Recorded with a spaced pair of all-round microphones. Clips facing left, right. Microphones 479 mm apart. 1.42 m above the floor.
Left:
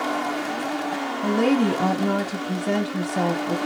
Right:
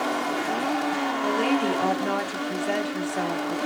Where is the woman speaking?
60° left (ahead or behind), 1.3 m.